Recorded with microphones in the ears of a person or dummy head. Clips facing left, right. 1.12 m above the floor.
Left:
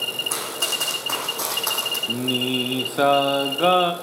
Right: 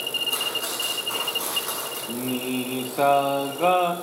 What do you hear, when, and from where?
0.3 s running footsteps: 75° left (ahead or behind), 5 m
2.1 s singing: 15° left (ahead or behind), 0.9 m